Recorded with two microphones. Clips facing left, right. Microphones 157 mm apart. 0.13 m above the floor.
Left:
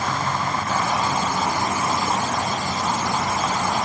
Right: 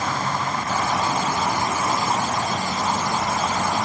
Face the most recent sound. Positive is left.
No sound to turn to.